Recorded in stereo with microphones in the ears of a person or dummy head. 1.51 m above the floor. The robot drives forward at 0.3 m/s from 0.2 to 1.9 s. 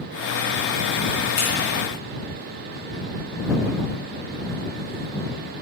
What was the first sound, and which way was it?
Scissors, 35° left (ahead or behind).